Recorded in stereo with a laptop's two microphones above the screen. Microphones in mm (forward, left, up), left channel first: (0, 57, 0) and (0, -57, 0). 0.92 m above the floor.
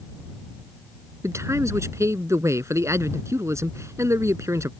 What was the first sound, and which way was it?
A man speaking, 25° right (ahead or behind).